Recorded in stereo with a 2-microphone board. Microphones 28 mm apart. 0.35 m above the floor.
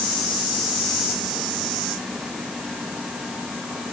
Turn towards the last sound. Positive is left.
No sound to turn to.